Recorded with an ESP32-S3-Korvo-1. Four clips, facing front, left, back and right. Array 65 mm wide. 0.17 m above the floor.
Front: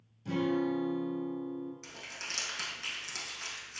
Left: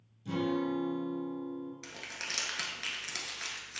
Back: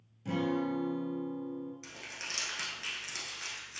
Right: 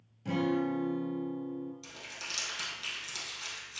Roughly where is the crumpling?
Left.